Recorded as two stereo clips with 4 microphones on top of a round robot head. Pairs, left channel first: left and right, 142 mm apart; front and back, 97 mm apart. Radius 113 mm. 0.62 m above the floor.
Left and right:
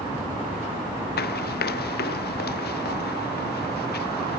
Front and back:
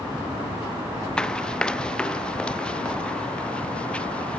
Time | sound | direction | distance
1.2 | running footsteps | 80° left | ?